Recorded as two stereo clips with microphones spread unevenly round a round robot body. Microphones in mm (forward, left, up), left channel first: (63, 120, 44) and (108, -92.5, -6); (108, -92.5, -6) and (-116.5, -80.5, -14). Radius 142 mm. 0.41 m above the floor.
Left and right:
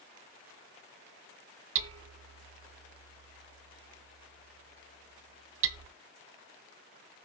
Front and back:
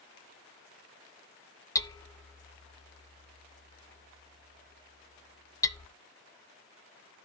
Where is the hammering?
80° right, 1.0 m.